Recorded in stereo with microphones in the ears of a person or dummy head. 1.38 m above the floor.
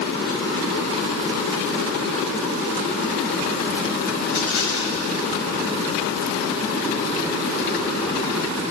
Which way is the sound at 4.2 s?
65° left (ahead or behind).